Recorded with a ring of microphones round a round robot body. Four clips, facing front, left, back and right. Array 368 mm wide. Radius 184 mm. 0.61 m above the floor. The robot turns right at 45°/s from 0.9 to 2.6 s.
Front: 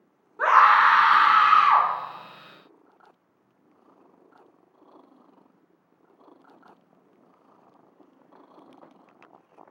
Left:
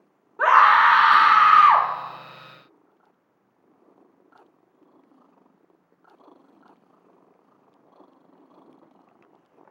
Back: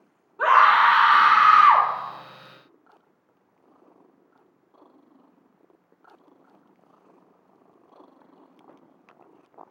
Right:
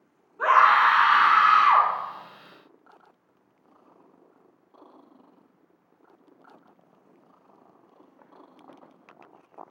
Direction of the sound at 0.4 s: 80° left.